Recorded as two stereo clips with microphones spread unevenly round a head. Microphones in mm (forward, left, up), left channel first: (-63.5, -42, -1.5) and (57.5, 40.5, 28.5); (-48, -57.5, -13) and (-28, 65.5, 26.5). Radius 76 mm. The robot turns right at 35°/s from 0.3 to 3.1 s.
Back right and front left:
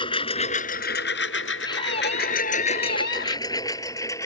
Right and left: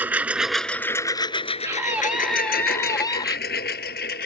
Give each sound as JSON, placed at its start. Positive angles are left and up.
{"t": 0.0, "sound": "a lawn mower", "azimuth_deg": 155}
{"t": 1.6, "sound": "a scream", "azimuth_deg": 150}